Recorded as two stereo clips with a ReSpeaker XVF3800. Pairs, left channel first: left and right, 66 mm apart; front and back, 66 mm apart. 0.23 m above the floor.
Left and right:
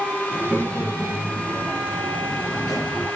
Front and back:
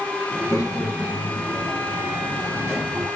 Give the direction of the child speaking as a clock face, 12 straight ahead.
11 o'clock.